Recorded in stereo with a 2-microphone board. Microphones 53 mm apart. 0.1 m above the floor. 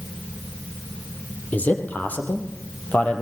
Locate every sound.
1.5 s a man speaking: 30° left (ahead or behind), 3.5 m